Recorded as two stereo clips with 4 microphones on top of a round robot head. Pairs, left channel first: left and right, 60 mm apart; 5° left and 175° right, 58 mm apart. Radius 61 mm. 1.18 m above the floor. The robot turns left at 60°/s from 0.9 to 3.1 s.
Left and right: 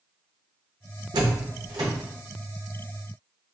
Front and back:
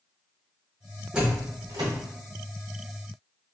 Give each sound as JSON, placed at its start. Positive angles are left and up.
{"t": 1.1, "sound": "a door slam", "azimuth_deg": -95, "distance_m": 0.6}